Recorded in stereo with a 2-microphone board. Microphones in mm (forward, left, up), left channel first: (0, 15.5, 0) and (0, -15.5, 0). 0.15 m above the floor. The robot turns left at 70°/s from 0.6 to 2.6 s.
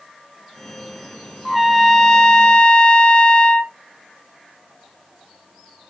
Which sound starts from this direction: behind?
A trumpet, at 1.4 s.